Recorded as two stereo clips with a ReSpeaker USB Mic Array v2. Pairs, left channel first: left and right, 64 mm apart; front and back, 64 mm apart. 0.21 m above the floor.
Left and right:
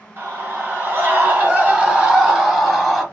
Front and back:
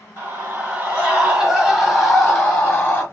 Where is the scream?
130° right, 1.7 m; by 3.0 s 5° left, 1.2 m.